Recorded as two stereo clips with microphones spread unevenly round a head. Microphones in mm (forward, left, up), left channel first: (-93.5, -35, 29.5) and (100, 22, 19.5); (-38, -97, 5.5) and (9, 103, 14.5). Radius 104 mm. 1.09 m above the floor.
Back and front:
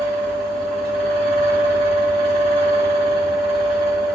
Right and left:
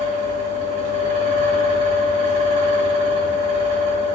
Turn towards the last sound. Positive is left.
turn(degrees=105)